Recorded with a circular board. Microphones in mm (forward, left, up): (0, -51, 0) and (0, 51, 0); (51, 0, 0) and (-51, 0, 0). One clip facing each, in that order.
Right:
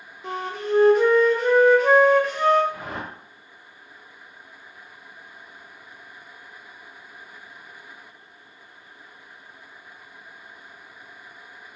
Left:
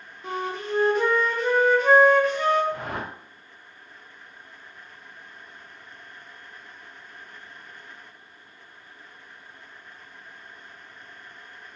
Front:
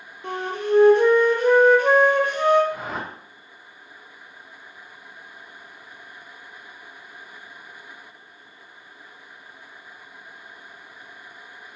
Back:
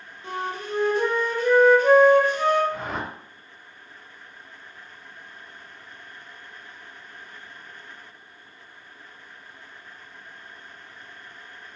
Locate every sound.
0.2 s a flute: straight ahead, 0.9 m
2.7 s a whoosh: 85° left, 1.1 m